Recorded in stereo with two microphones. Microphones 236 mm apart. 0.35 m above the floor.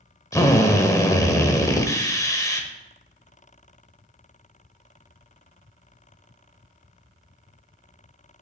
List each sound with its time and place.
0.3 s a drill: 15° left (ahead or behind), 0.8 m